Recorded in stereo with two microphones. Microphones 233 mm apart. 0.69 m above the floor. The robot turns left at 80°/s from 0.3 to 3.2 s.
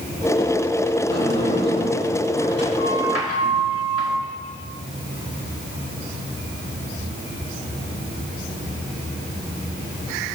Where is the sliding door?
110° right, 3 m; by 4.2 s 80° left, 3 m.